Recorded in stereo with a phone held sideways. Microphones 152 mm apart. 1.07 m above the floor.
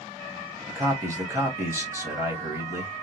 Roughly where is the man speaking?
Centre.